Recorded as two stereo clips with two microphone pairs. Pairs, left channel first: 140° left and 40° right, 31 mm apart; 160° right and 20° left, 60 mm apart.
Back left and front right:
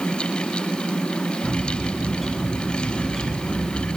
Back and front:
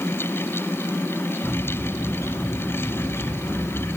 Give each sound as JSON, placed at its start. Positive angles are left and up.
{"t": 1.4, "sound": "a bird", "azimuth_deg": -135, "distance_m": 4.5}